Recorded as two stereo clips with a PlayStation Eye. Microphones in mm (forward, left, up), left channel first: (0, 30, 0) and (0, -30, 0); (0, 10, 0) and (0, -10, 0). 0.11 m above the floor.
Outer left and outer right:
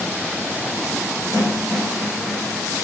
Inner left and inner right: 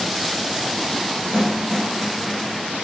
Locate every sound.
1.3 s a snare drum: 55° right (ahead or behind), 4 m